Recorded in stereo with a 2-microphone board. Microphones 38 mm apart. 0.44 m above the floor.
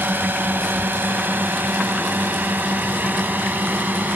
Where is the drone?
60° right (ahead or behind); by 4.2 s 50° right (ahead or behind).